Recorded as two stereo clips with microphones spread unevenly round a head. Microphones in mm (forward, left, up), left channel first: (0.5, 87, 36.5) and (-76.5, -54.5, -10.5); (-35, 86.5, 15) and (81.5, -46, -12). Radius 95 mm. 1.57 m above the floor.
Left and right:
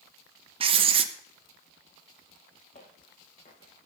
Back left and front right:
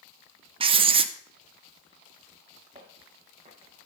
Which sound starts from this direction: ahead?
Footsteps, at 2.8 s.